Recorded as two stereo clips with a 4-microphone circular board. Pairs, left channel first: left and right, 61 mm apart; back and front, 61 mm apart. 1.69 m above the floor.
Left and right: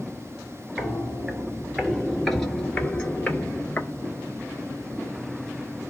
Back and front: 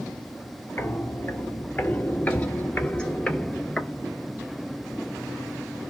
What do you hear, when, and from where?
0.8 s footsteps: 160° right, 2 m; by 3.9 s 110° left, 1.9 m